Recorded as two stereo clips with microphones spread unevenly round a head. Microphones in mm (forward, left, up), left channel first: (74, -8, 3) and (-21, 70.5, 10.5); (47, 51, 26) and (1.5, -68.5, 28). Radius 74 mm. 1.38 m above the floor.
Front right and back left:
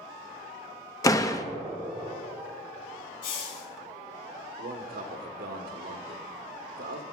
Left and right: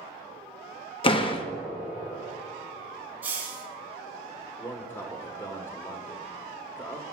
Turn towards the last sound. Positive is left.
turn(degrees=140)